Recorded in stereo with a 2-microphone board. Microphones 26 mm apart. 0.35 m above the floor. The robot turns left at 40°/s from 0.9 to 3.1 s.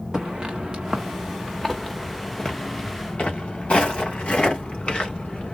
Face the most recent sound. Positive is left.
turn(degrees=50)  # may be behind; listen again after turning